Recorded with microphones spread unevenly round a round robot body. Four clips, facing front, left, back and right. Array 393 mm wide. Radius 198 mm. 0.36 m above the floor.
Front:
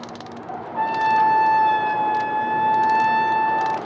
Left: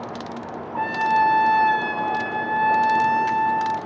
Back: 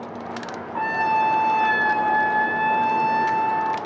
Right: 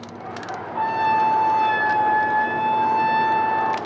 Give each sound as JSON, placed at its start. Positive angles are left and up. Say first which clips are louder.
{"t": 0.7, "sound": "a trumpet", "louder": "right 1 dB, front 3 dB", "azimuth_deg": 110, "distance_m": 1.0}